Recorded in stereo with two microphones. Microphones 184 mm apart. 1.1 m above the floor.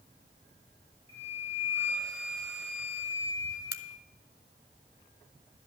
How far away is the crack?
About 0.9 m.